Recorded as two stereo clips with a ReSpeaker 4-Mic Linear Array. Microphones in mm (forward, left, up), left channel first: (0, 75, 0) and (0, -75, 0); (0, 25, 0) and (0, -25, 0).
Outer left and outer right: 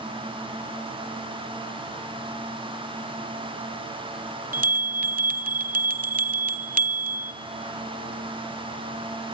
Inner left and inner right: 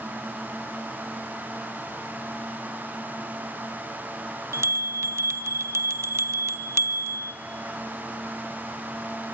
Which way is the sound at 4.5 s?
70° right (ahead or behind).